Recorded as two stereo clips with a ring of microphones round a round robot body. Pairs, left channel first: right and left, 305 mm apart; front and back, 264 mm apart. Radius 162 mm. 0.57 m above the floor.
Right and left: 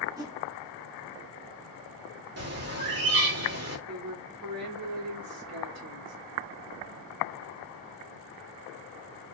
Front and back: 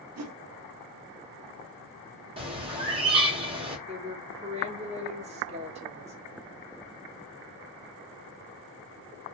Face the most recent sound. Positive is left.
turn(degrees=115)